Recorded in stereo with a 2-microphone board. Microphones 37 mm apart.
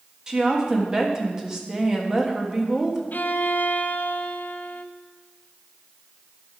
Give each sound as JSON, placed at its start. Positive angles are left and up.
{"t": 0.3, "sound": "a woman speaking", "side_deg": -15, "distance_m": 1.3}
{"t": 3.1, "sound": "a violin", "side_deg": 55, "distance_m": 0.5}